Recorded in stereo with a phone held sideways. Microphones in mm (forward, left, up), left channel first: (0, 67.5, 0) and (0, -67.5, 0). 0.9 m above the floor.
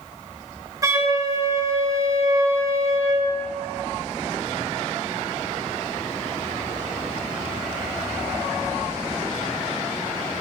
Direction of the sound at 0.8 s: 25° right (ahead or behind).